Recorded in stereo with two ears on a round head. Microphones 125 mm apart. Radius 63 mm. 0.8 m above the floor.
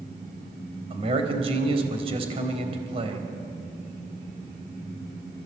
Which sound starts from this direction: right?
A man speaking, at 0.9 s.